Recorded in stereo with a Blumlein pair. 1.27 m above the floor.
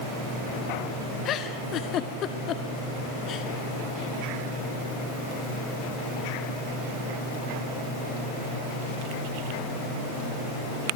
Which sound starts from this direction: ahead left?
A giggle, at 1.2 s.